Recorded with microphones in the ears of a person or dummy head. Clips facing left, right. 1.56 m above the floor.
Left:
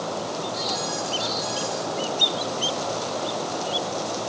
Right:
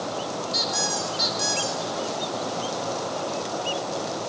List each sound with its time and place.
0.5 s a squeak: 75° right (ahead or behind), 4 m